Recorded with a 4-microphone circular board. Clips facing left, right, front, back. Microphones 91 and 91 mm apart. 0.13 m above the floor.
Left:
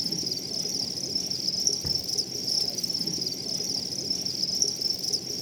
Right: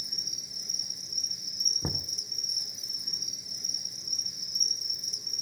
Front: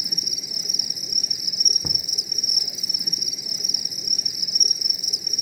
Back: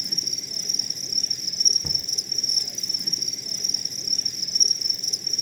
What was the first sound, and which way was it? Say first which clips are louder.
An insect: left 14 dB, front 1 dB; 85° left.